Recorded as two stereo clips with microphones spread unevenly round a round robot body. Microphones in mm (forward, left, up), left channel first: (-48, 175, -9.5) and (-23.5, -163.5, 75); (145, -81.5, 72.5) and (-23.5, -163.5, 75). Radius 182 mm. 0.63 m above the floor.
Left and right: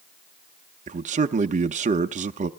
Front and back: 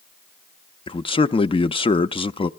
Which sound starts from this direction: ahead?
A man speaking, at 0.9 s.